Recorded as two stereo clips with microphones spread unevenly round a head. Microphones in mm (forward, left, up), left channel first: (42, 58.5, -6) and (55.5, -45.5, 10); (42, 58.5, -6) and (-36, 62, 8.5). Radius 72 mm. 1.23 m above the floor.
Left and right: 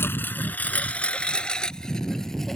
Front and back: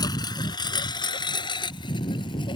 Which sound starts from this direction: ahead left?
A lawn mower, at 0.0 s.